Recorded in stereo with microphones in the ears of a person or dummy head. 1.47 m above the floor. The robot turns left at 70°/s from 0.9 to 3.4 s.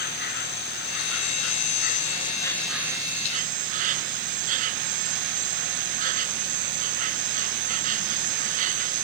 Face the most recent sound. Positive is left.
turn(degrees=-50)